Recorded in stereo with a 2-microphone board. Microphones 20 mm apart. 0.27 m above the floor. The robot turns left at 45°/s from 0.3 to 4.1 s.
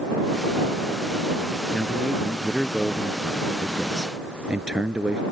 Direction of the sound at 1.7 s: 60° left.